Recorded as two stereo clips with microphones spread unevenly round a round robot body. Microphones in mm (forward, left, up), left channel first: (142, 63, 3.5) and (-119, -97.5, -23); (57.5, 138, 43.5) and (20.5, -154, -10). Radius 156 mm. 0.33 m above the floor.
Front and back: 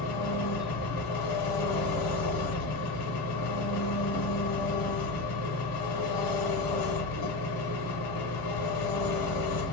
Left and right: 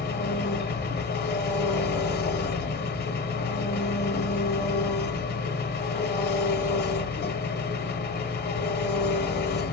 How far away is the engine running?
About 0.7 m.